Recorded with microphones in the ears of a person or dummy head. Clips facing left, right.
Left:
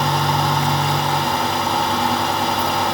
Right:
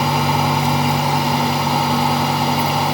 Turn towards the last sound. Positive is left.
No sound to turn to.